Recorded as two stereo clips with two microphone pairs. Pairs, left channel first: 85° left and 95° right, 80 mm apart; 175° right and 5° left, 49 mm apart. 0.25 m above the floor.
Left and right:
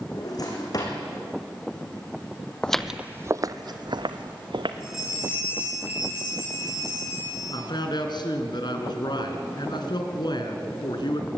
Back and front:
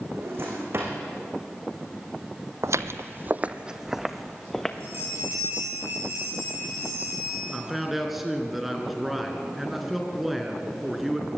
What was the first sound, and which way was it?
A drawer, 45° left.